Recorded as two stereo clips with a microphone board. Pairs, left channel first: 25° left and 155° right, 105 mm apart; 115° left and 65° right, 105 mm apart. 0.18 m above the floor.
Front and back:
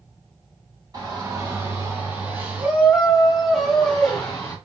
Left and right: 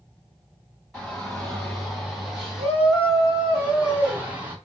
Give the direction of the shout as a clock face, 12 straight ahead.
6 o'clock.